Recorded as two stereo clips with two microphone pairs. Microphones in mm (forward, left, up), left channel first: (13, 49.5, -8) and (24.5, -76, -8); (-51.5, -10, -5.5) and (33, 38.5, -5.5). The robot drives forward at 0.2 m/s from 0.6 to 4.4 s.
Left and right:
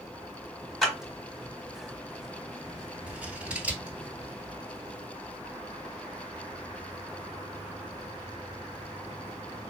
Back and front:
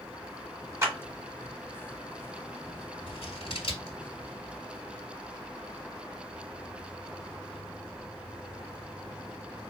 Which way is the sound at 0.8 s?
5° left.